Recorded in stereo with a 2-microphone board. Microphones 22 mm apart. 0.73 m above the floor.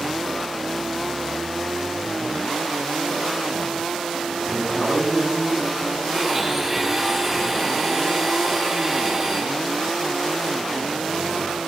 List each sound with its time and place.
4.5 s a man speaking: 35° left (ahead or behind), 7.5 m
6.1 s a blender: 10° right (ahead or behind), 6.5 m